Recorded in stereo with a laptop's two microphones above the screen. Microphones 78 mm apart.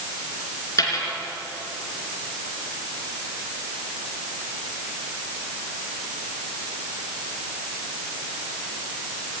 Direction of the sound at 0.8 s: 45° left (ahead or behind).